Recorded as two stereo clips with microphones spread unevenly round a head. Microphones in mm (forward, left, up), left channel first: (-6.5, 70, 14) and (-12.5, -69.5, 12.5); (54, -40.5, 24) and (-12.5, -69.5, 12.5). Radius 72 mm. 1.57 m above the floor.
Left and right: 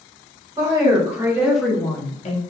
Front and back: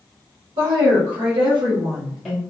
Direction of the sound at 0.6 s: 155° right.